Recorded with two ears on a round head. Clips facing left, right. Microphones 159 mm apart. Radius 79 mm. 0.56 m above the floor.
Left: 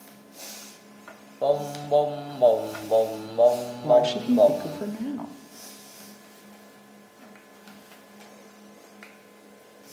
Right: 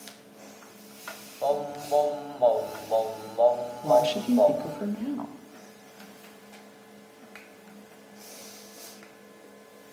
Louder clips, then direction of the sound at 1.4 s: Left 3 dB; 35° left (ahead or behind).